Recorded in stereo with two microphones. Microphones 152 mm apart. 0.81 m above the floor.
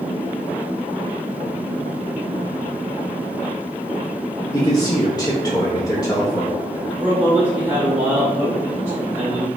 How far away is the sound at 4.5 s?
About 0.7 m.